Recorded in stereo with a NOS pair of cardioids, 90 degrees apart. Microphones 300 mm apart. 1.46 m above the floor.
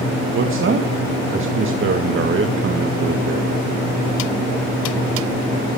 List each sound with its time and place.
0.3 s a man speaking: 45° right, 1.8 m